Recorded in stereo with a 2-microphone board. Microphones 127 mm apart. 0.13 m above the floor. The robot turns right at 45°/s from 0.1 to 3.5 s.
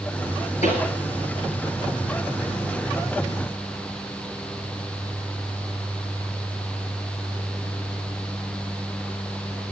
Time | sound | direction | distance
0.6 | a pop | 75° left (ahead or behind) | 4.5 m